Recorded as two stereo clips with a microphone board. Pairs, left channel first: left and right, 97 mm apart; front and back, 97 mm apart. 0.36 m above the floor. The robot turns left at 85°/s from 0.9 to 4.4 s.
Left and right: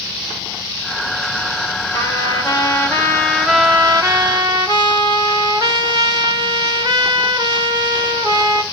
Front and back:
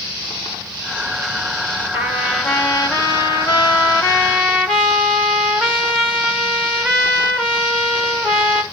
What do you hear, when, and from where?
1.9 s a trumpet: 130° left, 1.7 m; by 8.6 s 80° right, 1.7 m